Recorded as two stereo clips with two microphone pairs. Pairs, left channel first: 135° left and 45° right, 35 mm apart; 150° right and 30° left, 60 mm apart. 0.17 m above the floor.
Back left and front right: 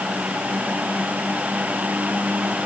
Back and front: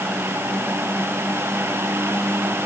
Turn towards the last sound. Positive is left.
No sound to turn to.